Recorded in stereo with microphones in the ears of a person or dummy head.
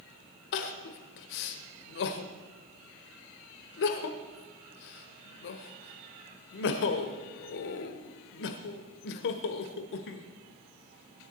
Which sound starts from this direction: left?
Crying, at 0.5 s.